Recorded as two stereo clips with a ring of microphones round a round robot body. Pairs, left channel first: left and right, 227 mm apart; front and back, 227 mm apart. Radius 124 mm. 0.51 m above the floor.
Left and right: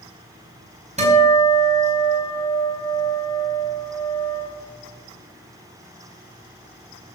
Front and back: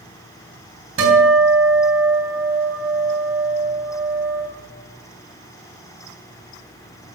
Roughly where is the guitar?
Behind right.